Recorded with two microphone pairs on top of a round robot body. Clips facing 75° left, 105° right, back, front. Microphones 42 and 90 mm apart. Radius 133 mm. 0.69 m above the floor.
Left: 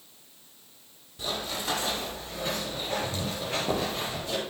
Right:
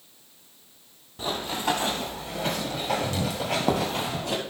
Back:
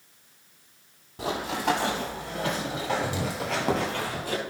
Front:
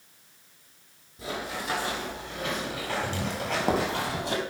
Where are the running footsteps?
160° right, 1.7 m; by 4.4 s 65° right, 1.4 m.